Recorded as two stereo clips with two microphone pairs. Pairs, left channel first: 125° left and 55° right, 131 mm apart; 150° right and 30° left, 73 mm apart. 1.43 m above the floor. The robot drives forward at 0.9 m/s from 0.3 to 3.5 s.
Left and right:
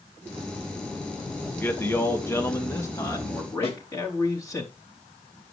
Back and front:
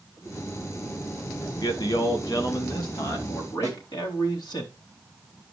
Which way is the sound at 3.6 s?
165° left.